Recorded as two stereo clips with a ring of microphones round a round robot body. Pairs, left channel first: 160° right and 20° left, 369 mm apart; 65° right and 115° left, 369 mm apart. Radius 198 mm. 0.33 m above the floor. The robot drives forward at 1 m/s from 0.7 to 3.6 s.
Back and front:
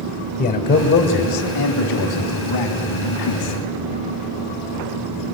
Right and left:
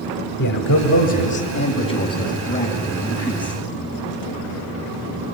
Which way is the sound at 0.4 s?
95° right.